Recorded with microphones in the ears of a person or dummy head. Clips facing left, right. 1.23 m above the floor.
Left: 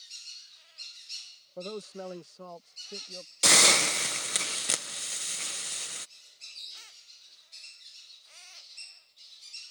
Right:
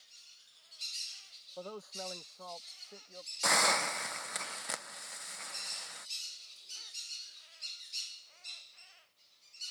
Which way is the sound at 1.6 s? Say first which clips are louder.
Left 6 dB; 35° left (ahead or behind).